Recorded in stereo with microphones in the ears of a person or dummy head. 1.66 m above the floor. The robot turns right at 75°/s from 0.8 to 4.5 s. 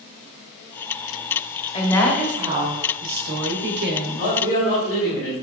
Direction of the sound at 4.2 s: 60° left (ahead or behind).